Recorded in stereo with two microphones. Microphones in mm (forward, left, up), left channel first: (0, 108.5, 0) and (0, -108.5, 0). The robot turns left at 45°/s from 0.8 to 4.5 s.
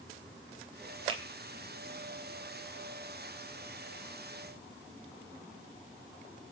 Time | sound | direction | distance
1.1 | a finger snap | 25° right (ahead or behind) | 3 m